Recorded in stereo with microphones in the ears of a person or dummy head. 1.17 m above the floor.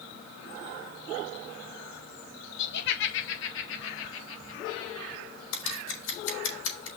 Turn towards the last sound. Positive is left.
turn(degrees=80)